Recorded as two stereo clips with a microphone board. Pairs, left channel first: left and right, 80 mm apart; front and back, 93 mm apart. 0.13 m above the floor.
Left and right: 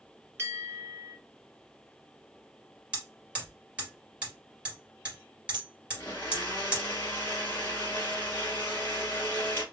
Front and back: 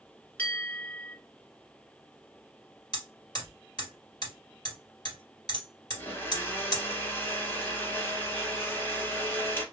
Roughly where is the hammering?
Ahead.